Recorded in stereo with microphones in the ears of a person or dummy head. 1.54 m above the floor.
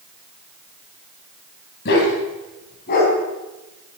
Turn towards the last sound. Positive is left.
turn(degrees=40)  # may be behind; listen again after turning